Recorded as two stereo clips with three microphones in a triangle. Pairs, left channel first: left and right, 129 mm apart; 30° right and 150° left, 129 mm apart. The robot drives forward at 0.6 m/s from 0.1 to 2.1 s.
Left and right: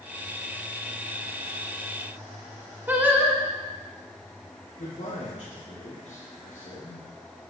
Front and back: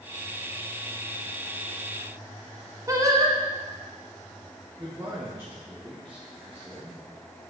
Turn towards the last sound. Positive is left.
turn(degrees=80)